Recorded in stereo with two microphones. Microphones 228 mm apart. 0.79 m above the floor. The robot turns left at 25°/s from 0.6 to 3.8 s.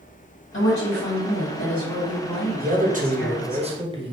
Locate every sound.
0.5 s a woman speaking: 65° left, 1.5 m; by 3.6 s 10° right, 1.5 m
2.6 s a man speaking: 110° right, 0.9 m; by 4.1 s 145° right, 0.9 m